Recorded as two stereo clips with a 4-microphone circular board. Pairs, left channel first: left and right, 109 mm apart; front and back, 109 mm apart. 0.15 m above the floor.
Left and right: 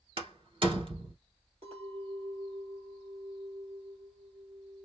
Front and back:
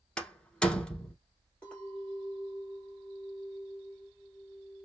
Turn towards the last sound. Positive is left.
turn(degrees=-80)